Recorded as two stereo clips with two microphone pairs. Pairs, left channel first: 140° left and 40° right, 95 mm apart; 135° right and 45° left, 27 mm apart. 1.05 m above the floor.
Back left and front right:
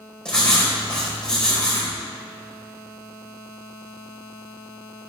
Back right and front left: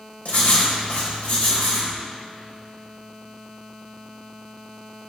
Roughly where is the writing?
Behind right.